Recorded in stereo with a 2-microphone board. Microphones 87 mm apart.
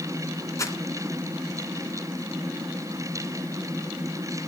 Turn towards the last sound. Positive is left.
turn(degrees=35)  # may be behind; listen again after turning